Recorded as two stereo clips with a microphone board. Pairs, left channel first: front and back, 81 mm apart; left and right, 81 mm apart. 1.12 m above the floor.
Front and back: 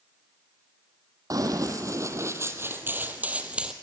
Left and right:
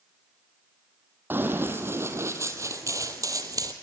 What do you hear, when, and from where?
1.3 s running footsteps: 150° right, 2 m; by 3.7 s 105° right, 1.7 m